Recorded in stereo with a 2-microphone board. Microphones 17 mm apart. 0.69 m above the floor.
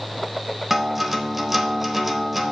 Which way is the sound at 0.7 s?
Centre (ahead or behind).